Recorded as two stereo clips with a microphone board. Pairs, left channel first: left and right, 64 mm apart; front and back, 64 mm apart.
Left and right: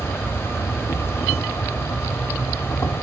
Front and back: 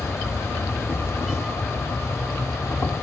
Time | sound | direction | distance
0.0 | an insect | 45° left | 0.9 m